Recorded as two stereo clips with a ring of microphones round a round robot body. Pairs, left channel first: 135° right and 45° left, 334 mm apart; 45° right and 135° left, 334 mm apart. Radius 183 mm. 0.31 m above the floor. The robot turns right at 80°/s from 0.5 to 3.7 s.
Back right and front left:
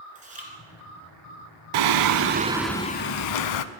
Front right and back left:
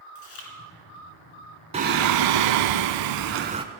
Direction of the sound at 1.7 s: 60° left.